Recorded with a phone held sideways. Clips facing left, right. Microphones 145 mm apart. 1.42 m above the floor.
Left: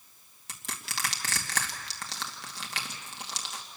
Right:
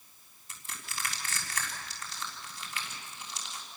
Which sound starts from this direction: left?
Crushing, at 0.5 s.